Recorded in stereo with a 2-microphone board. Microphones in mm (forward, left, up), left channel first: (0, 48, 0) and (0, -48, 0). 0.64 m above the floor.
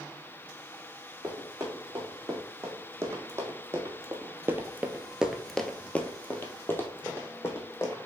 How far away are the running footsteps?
About 2.5 m.